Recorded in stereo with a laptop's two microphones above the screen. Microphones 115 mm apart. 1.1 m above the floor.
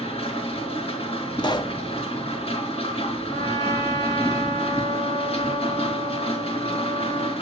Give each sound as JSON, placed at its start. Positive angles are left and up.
{"t": 0.0, "sound": "a machine running", "side_deg": 60, "distance_m": 4.0}
{"t": 1.4, "sound": "a pop", "side_deg": 40, "distance_m": 0.7}
{"t": 3.3, "sound": "a trumpet", "side_deg": 35, "distance_m": 4.5}